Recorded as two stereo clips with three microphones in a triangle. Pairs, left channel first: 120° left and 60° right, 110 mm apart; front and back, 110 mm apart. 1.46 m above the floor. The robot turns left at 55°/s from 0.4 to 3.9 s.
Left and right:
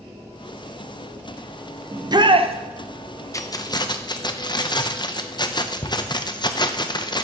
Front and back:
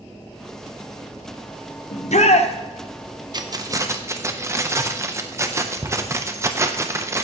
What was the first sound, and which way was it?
A shout, 5° left.